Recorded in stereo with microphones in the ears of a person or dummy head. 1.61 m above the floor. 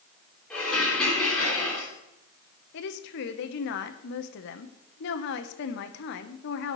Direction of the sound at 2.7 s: 65° left (ahead or behind).